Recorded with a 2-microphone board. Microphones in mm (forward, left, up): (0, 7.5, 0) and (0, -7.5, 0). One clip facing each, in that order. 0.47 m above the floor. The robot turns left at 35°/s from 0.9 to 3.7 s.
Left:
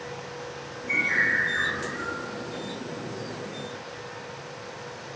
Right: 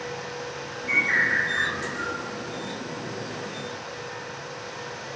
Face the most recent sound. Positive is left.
turn(degrees=150)